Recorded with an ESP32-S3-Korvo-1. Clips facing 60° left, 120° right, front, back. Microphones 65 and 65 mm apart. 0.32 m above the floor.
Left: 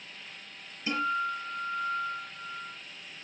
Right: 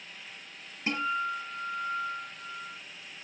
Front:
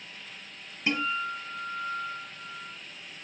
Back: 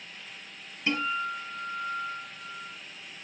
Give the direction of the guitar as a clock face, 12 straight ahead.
2 o'clock.